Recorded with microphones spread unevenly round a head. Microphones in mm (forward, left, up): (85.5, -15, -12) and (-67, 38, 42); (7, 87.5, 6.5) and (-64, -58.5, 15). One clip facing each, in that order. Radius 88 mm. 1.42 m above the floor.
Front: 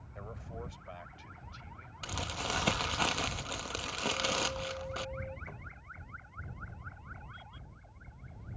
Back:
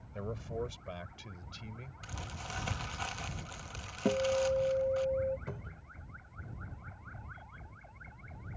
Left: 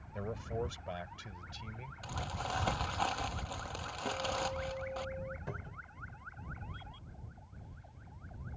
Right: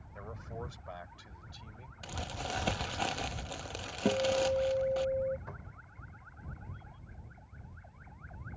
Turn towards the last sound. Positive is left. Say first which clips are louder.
# back 5 dB, left 4 dB
turn(degrees=120)